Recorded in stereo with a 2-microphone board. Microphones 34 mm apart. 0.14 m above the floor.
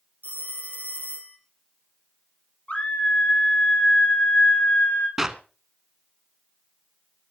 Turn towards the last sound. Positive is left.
turn(degrees=-15)  # may be behind; listen again after turning